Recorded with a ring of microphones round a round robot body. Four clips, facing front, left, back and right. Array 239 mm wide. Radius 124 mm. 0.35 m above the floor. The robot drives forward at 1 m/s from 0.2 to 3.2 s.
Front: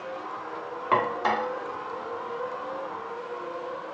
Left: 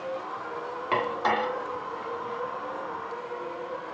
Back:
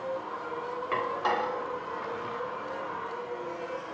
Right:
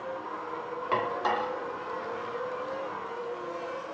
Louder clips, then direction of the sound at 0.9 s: Left 2 dB, front 5 dB; 15° left.